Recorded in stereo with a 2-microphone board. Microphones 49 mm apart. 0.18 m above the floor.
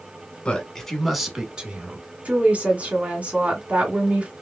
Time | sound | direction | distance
0.5 | a man speaking | 20° left (ahead or behind) | 1.3 m
2.2 | a woman speaking | 30° right (ahead or behind) | 1.4 m